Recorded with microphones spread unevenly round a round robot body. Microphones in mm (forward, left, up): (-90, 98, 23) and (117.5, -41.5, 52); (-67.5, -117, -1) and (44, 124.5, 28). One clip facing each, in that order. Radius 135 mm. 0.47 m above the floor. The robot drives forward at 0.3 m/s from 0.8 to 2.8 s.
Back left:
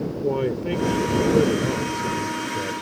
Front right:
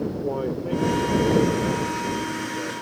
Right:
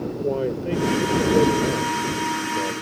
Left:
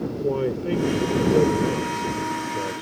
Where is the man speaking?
135° left; by 2.8 s 150° left.